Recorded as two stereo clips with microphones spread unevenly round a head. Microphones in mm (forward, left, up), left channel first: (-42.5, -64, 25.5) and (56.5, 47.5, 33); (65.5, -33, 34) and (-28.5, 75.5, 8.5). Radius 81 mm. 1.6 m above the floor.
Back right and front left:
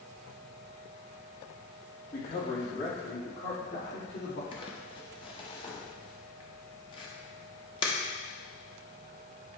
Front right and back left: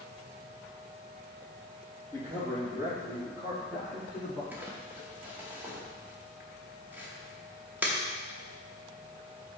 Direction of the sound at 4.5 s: 140° right.